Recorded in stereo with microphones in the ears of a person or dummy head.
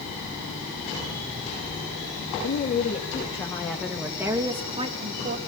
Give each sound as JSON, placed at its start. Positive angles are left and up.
{"t": 2.4, "sound": "a woman speaking", "side_deg": 45, "distance_m": 2.0}